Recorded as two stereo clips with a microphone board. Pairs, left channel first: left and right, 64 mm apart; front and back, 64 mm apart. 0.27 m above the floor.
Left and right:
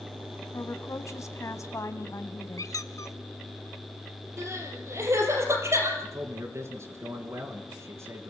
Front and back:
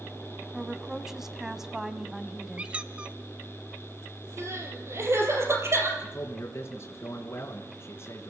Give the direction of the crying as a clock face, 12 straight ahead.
4 o'clock.